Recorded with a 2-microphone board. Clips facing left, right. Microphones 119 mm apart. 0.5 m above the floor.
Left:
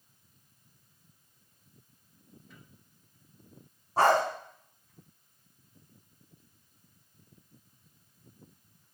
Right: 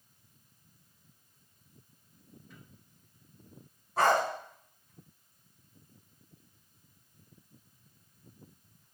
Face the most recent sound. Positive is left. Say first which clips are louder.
# left 2 dB
turn(degrees=35)  # may be behind; listen again after turning